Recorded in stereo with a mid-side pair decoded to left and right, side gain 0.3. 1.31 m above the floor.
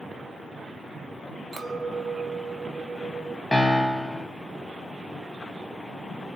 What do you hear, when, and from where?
1.5 s a clink: 40° right, 0.9 m
3.5 s a piano: 20° left, 0.8 m